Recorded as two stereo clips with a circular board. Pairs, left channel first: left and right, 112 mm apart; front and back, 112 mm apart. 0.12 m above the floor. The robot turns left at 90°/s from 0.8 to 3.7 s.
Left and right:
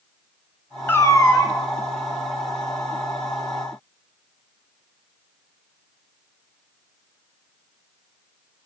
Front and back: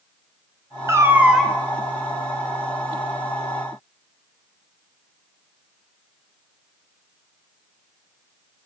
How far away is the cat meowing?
About 0.6 m.